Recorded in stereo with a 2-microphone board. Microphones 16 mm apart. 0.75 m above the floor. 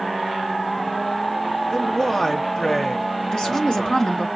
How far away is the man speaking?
About 1.1 m.